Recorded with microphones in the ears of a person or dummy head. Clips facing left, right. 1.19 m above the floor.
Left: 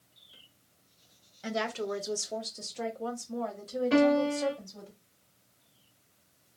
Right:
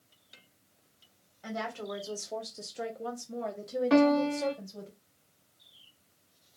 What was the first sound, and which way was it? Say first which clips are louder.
A woman speaking: left 4 dB; 35° left (ahead or behind).